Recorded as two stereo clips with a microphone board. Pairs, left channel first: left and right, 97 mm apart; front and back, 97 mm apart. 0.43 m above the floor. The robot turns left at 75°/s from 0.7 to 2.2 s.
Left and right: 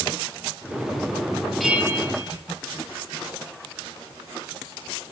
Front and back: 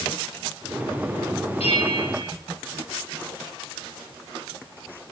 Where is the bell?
Straight ahead, 2.5 m; by 2.3 s 45° right, 2.5 m.